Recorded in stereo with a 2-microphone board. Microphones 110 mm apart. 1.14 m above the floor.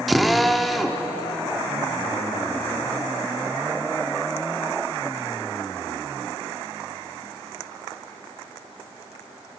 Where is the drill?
Centre (ahead or behind), 0.8 m.